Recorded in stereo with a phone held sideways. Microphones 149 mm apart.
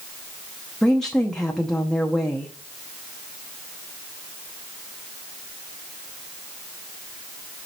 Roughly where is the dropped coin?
I don't hear a dropped coin.